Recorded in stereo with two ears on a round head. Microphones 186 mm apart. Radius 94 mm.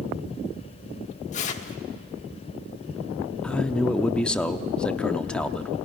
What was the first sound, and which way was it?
Tearing paper, 35° left (ahead or behind).